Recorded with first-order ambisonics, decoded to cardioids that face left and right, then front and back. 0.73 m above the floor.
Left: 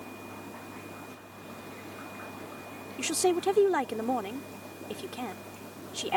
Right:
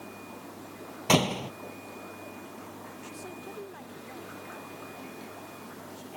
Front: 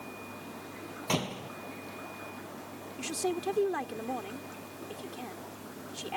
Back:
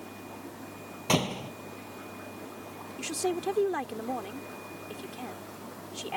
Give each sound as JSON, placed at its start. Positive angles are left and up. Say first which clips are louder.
{"t": 1.1, "sound": "a door slam", "louder": "right 21 dB, back 5 dB", "azimuth_deg": -105}
{"t": 3.0, "sound": "a woman speaking", "louder": "left 20 dB, back 2 dB", "azimuth_deg": 95}